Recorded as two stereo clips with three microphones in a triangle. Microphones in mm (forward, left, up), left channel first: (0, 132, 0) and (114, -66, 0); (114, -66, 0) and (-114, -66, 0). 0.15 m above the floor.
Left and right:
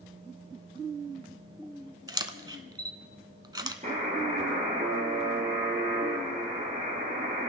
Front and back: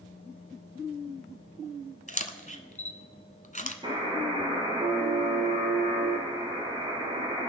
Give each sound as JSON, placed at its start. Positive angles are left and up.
{"t": 2.1, "sound": "a camera shutter", "azimuth_deg": 0, "distance_m": 1.0}
{"t": 3.8, "sound": "a buzzer", "azimuth_deg": -115, "distance_m": 4.0}